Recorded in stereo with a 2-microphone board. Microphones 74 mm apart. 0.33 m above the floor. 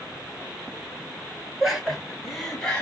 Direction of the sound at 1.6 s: 5° right (ahead or behind).